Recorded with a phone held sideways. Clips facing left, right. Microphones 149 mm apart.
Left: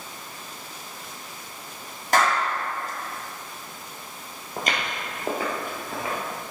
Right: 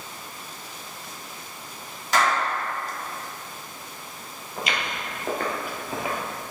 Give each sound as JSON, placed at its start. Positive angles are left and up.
{"t": 2.1, "sound": "a clap", "side_deg": 50, "distance_m": 2.0}
{"t": 4.6, "sound": "footsteps", "side_deg": 50, "distance_m": 1.6}